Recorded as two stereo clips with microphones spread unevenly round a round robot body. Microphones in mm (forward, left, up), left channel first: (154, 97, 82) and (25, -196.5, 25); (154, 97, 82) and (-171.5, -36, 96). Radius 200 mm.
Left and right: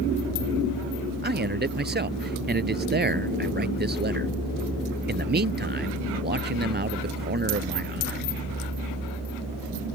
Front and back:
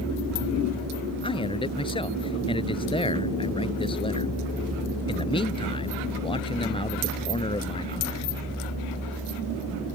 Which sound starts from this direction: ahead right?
A man speaking, at 1.2 s.